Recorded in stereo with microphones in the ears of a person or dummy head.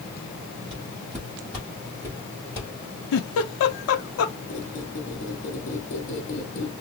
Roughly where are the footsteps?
Centre.